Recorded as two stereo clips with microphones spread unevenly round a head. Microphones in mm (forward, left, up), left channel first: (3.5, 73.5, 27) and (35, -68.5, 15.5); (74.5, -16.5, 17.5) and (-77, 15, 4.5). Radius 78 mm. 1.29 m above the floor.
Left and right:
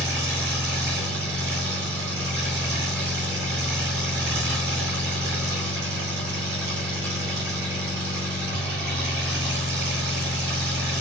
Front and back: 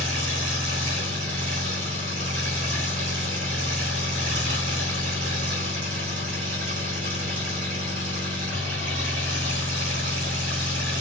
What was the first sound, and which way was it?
An engine running, 155° right.